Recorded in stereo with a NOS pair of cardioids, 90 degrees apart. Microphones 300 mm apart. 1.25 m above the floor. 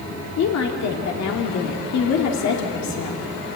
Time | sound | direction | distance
0.4 | a woman speaking | 65° left | 2.5 m